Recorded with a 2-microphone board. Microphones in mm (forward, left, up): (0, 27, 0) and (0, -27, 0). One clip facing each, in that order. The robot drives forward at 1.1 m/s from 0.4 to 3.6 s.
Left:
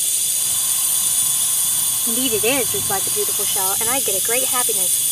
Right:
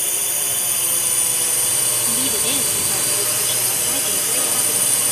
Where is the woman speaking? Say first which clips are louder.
Left 9 dB; 60° left (ahead or behind); by 5.0 s 50° left (ahead or behind).